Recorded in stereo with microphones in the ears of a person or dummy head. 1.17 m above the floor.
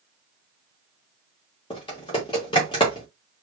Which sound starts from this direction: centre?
Typing on a keyboard, at 1.7 s.